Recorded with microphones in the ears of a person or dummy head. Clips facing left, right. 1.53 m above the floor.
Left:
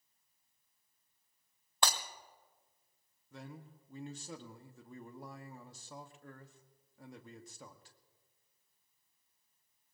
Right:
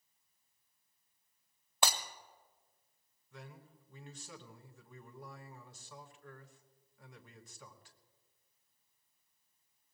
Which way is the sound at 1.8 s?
5° right (ahead or behind).